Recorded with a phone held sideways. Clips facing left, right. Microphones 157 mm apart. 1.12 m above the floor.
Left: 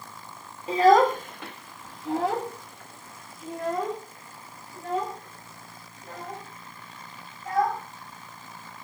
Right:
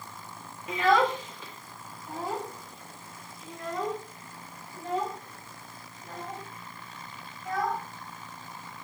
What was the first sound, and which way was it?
A child speaking, 30° left (ahead or behind).